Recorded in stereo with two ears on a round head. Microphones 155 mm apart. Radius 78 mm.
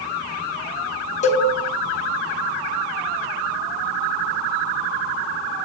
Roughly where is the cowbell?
Left.